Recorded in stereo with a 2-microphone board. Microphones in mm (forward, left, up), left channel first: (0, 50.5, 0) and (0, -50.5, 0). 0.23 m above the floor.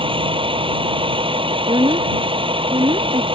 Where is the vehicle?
60° right (ahead or behind).